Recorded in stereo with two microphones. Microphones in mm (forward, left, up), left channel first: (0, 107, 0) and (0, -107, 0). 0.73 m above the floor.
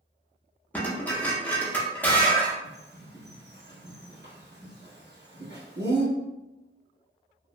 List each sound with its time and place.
0.7 s dishes clattering: 10° left (ahead or behind), 0.6 m
2.6 s a bird: 55° right (ahead or behind), 1.1 m